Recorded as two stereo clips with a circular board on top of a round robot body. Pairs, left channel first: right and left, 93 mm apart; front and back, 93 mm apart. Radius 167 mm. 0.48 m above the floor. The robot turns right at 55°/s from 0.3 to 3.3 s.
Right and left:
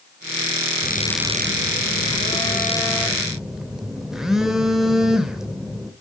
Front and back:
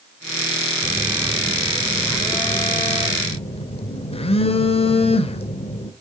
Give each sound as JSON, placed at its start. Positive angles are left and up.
{"t": 0.8, "sound": "a phone buzzing", "azimuth_deg": -130, "distance_m": 2.0}